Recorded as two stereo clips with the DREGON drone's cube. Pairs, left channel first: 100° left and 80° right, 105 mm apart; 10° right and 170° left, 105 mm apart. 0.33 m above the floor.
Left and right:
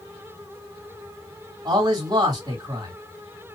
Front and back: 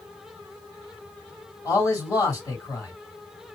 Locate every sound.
1.6 s a man speaking: 55° right, 2.0 m